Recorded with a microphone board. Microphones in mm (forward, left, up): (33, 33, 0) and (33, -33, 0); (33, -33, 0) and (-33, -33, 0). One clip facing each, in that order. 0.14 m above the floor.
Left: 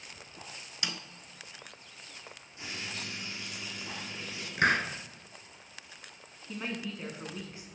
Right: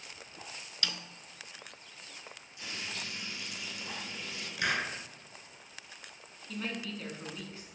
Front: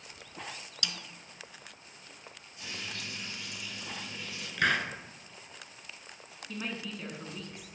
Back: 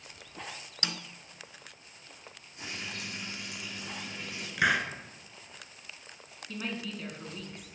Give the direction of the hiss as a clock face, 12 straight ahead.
9 o'clock.